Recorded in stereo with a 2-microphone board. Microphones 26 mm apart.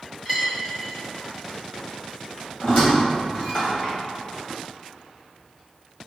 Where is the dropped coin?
10° right (ahead or behind), 1.6 m.